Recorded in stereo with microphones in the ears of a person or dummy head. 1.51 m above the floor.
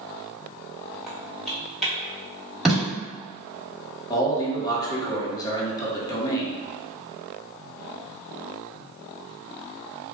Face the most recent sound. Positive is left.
turn(degrees=20)  # may be behind; listen again after turning